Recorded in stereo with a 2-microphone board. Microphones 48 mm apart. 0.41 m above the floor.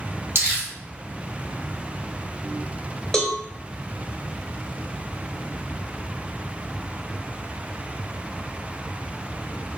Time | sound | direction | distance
0.3 | crumpling | 45° right (ahead or behind) | 2 m
3.1 | a cowbell | 10° left (ahead or behind) | 1.0 m